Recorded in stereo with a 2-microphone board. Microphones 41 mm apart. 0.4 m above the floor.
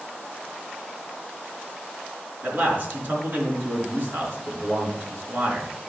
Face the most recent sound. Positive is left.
turn(degrees=-55)  # may be behind; listen again after turning